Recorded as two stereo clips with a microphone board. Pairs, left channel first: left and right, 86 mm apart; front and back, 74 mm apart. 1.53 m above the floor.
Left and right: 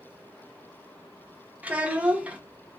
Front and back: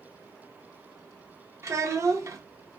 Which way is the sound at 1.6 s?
160° right.